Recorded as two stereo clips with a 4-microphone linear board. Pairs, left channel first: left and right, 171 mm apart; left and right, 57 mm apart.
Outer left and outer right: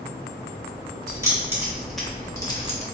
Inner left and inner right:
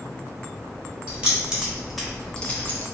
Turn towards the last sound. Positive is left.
turn(degrees=40)  # may be behind; listen again after turning